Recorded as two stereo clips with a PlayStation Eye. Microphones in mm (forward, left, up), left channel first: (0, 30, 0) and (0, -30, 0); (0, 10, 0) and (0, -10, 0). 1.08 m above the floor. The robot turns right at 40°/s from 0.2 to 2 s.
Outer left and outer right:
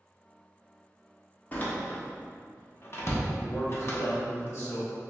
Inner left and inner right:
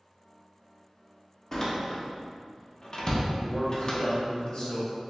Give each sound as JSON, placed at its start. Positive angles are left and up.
{"t": 1.5, "sound": "a door slam", "side_deg": 25, "distance_m": 0.7}
{"t": 3.4, "sound": "a man speaking", "side_deg": 55, "distance_m": 1.2}